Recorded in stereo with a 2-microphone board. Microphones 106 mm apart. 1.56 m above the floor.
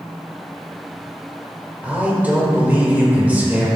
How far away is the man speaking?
About 2.5 m.